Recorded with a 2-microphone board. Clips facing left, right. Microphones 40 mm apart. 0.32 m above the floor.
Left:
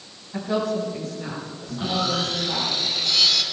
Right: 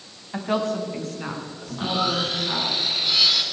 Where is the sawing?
15° right (ahead or behind), 2.5 m.